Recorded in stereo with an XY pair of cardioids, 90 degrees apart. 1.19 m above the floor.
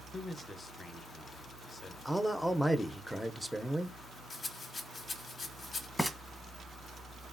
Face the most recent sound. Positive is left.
turn(degrees=15)